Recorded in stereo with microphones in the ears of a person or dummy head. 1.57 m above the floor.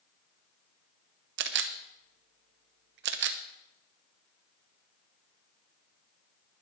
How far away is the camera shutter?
About 1.0 m.